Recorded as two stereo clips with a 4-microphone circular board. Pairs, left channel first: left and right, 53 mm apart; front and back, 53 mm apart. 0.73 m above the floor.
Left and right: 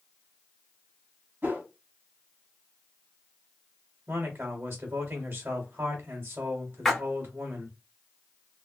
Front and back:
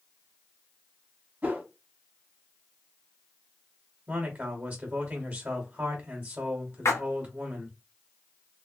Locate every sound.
1.4 s a whoosh: 130° right, 1.2 m
4.1 s a man speaking: 135° right, 1.1 m
6.8 s a splash: 5° left, 0.8 m